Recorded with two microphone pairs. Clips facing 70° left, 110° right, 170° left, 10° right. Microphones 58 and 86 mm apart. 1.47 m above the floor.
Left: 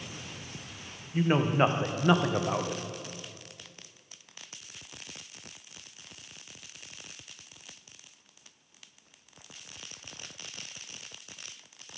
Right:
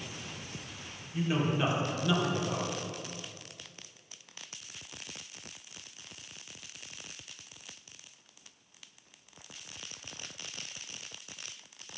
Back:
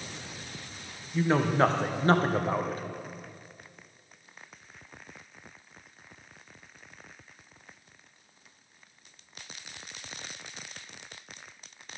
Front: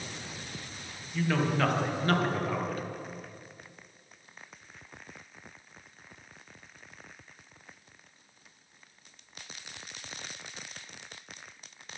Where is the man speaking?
115° left, 0.8 m.